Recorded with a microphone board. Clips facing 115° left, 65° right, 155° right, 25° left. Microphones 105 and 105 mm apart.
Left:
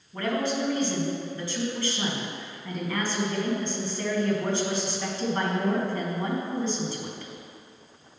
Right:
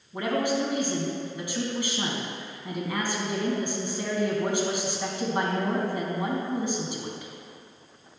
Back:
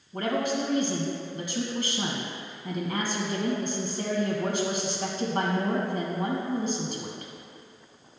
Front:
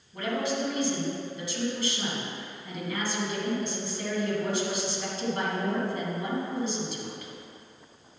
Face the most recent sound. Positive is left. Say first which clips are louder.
# right 1 dB, back 2 dB
turn(degrees=-140)